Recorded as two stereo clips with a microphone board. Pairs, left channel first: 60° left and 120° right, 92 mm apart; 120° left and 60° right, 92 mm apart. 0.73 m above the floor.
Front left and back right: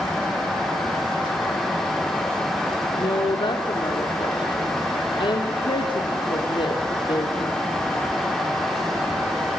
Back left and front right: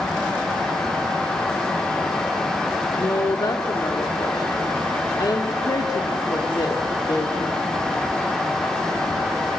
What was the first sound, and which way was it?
A woman speaking, 80° left.